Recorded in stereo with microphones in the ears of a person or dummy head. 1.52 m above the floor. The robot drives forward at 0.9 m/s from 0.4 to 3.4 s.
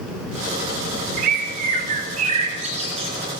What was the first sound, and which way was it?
A bird, 45° right (ahead or behind).